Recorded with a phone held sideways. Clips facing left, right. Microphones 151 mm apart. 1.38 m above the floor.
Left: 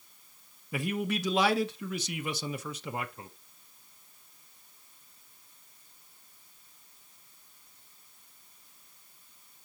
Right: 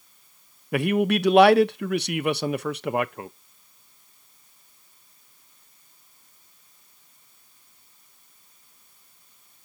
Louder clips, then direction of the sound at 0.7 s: Right 10 dB; 70° right (ahead or behind).